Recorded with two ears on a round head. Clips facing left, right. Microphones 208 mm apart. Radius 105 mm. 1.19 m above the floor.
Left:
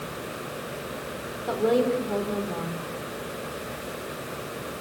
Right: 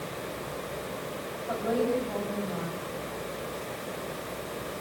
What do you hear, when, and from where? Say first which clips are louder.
1.5 s a woman speaking: left 5 dB; 85° left, 3.5 m